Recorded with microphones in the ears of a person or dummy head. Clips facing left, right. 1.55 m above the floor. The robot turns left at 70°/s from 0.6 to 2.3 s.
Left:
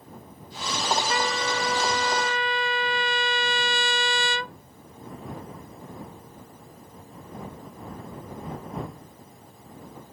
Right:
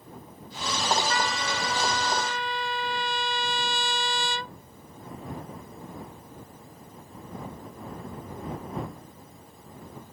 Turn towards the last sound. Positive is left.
turn(degrees=75)